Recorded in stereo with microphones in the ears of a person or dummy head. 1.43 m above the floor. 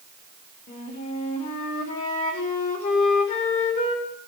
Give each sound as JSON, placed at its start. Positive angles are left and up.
{"t": 0.7, "sound": "a flute", "side_deg": 40, "distance_m": 2.5}